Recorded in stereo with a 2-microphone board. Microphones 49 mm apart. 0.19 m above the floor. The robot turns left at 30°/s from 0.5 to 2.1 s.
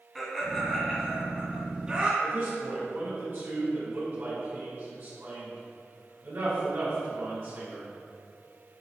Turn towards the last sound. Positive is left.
turn(degrees=-45)  # may be behind; listen again after turning